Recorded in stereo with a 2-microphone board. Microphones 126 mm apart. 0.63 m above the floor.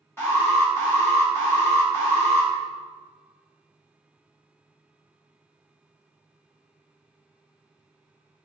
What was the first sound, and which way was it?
An alarm, 20° left (ahead or behind).